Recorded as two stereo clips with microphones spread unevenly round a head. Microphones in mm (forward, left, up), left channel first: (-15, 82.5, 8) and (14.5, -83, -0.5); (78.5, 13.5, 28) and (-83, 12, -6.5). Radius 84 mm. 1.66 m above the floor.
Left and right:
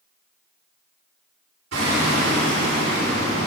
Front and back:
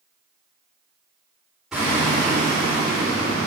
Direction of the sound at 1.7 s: 90° right.